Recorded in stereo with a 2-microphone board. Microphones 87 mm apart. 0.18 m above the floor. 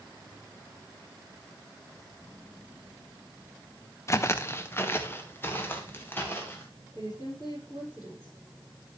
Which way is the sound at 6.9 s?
45° left (ahead or behind).